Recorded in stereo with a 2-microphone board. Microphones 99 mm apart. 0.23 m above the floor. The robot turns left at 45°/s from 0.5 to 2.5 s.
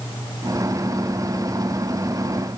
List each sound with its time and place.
Only background noise.